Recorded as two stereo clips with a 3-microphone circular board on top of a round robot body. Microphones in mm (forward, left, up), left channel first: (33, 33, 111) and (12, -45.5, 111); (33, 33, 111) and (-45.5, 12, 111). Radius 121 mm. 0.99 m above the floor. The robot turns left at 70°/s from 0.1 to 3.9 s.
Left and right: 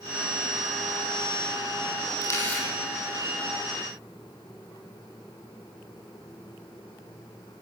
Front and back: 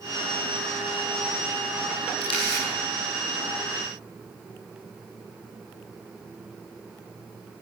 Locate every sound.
2.2 s a camera shutter: 25° left, 9 m; by 2.6 s 10° right, 9 m